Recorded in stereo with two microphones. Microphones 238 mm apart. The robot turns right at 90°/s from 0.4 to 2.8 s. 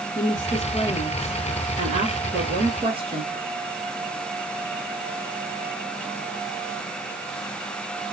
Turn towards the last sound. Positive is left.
turn(degrees=-40)